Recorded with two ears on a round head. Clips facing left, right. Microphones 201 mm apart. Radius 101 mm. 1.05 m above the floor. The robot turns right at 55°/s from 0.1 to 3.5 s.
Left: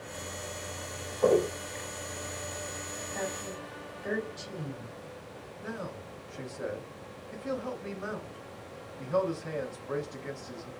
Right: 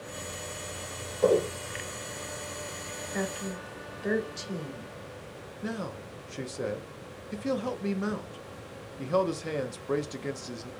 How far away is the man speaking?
About 0.6 m.